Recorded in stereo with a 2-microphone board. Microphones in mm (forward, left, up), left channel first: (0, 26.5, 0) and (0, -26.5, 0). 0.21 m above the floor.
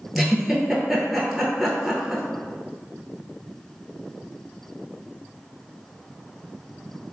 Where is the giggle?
5° right (ahead or behind), 0.8 m.